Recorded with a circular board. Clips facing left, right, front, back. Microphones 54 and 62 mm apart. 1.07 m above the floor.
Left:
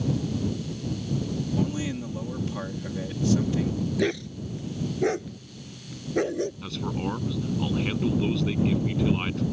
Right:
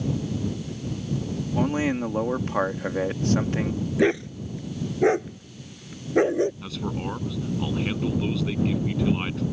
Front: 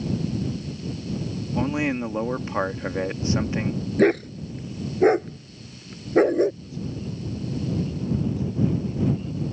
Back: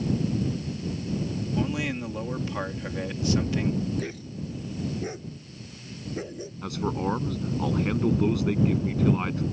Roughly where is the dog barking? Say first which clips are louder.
Right 8 dB, front 15 dB; ahead right.